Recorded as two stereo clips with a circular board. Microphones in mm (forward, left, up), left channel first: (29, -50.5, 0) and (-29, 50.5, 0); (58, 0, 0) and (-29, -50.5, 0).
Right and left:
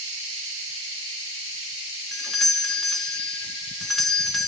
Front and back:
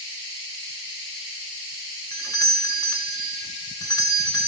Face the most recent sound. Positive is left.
turn(degrees=30)